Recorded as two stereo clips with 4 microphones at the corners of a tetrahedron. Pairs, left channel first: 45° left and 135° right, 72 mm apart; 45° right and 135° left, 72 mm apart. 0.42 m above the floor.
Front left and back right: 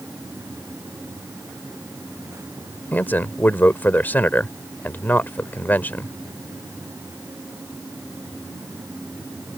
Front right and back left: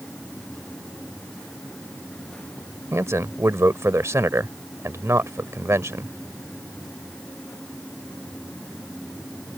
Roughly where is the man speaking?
Left.